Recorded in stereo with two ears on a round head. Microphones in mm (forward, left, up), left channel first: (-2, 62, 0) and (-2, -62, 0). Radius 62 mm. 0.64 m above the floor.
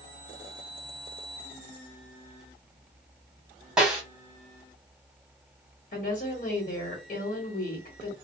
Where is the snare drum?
5° right (ahead or behind), 1.3 m.